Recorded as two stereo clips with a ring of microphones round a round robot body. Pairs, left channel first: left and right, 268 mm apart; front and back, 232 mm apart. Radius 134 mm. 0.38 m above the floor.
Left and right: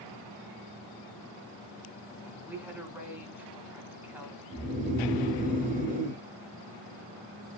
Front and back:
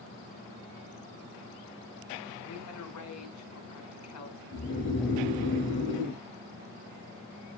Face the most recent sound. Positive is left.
turn(degrees=-35)